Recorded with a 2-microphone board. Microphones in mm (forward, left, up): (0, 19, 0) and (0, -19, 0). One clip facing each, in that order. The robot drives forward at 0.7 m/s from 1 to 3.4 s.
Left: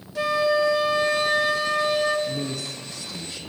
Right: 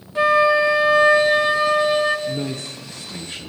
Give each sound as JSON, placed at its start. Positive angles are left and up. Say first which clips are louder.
{"t": 0.1, "sound": "a flute", "louder": "right 6 dB", "side_deg": -30, "distance_m": 1.1}
{"t": 2.3, "sound": "a man speaking", "louder": "right 3 dB", "side_deg": -35, "distance_m": 0.9}